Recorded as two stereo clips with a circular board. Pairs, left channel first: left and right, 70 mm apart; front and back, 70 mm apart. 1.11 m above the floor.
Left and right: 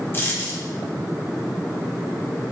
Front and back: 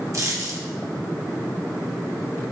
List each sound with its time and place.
0.1 s a dropped coin: 145° left, 0.7 m